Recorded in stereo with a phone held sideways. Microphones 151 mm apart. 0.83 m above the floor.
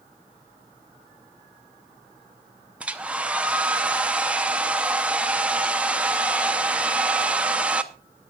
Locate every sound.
2.8 s a hair dryer: 10° right (ahead or behind), 0.7 m